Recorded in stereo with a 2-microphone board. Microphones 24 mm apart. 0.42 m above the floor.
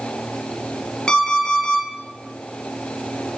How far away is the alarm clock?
About 3 m.